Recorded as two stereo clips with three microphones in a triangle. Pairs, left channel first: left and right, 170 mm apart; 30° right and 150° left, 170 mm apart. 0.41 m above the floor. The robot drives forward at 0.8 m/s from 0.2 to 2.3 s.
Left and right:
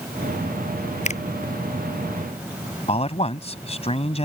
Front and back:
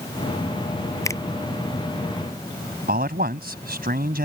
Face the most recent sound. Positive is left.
turn(degrees=140)